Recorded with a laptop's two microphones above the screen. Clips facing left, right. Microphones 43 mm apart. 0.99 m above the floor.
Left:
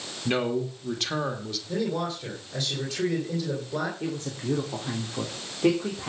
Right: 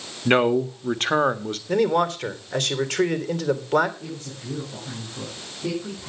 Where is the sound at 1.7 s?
75° right (ahead or behind), 3 m.